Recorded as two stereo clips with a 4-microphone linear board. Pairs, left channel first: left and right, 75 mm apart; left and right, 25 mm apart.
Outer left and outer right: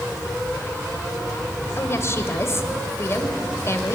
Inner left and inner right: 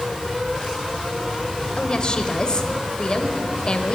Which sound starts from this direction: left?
A woman speaking, at 1.8 s.